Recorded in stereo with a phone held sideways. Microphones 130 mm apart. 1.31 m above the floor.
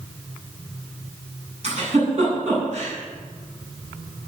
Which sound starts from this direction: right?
A giggle, at 1.6 s.